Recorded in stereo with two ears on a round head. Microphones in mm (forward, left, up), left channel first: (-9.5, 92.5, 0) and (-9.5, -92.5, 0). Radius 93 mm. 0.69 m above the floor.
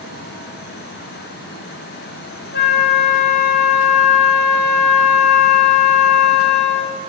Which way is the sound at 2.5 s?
55° left (ahead or behind).